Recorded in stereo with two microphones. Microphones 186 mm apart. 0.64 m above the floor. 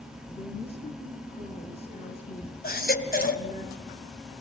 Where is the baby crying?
55° left (ahead or behind), 2.5 m.